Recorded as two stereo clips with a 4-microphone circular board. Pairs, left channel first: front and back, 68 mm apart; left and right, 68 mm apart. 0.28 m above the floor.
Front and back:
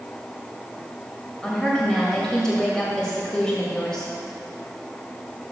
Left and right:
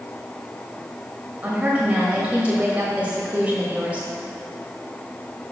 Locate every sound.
1.4 s a woman speaking: 65° right, 1.5 m